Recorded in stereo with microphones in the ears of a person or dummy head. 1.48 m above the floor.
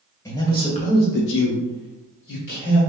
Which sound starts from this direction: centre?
A man speaking, at 0.2 s.